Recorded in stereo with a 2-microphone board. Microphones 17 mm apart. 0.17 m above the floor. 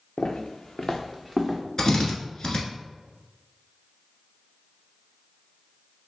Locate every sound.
0.2 s footsteps: 75° left (ahead or behind), 0.7 m; by 1.6 s 10° right (ahead or behind), 1.0 m
1.8 s a drill: 35° left (ahead or behind), 1.1 m